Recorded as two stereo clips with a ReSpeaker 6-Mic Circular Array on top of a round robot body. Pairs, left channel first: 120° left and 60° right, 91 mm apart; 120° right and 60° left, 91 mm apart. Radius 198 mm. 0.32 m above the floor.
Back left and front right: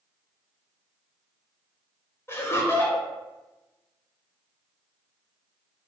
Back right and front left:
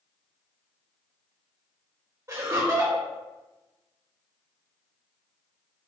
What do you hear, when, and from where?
2.3 s laughter: 80° left, 1.2 m